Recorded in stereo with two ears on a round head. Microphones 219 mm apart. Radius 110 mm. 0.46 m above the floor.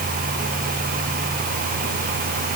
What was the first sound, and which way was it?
Only background noise.